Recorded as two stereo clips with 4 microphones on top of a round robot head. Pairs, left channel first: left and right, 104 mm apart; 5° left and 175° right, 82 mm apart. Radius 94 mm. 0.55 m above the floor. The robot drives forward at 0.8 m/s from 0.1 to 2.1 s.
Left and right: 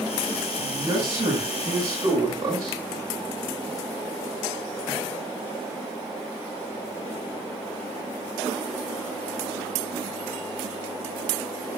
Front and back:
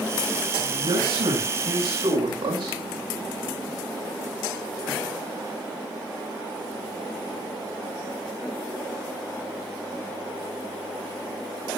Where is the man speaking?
150° right, 7 m; by 2.8 s 155° right, 8 m.